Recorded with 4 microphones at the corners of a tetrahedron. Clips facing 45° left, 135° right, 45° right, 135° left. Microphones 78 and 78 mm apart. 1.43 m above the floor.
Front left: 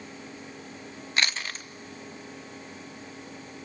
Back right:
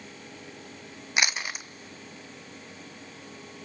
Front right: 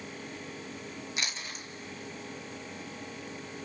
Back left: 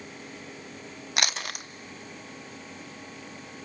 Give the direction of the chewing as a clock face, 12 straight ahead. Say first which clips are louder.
Back right 1 dB, back left 11 dB; 7 o'clock.